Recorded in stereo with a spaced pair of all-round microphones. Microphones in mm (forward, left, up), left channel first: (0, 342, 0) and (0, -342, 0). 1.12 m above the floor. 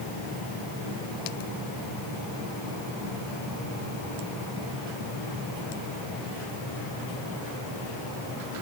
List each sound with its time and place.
Only background noise.